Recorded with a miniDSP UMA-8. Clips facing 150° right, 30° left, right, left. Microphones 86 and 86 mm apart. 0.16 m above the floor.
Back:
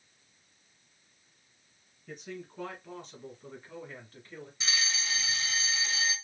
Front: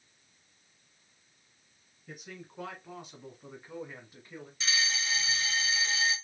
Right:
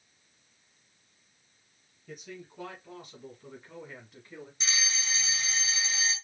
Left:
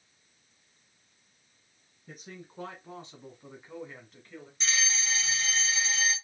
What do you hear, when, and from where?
2.1 s a man speaking: 110° left, 1.5 m; by 4.5 s 35° right, 1.2 m
4.6 s a fire alarm: 155° right, 2.5 m